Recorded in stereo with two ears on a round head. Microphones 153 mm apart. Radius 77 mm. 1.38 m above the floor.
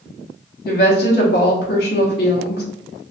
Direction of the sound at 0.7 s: 60° left (ahead or behind).